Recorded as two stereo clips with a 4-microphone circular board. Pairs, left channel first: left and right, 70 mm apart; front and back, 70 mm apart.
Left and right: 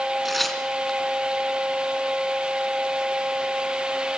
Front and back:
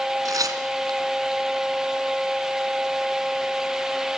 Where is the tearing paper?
Straight behind, 2.5 m.